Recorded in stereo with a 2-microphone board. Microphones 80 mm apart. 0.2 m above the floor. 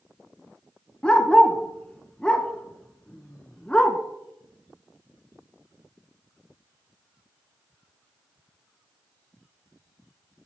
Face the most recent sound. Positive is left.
turn(degrees=15)  # may be behind; listen again after turning